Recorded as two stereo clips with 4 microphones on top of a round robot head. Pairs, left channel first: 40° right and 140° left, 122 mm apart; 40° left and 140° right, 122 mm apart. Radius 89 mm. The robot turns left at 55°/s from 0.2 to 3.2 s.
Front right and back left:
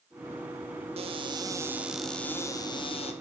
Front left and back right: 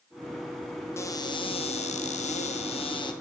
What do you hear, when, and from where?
1.0 s a cupboard door: 105° left, 1.9 m; by 3.1 s 10° right, 1.9 m